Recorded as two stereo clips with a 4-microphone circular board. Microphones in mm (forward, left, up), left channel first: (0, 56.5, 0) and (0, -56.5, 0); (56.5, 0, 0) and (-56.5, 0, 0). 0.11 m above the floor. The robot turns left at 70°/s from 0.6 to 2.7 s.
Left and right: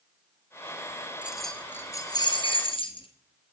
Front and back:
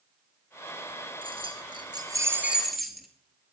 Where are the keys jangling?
165° right, 1.3 m; by 3.1 s 90° left, 1.3 m.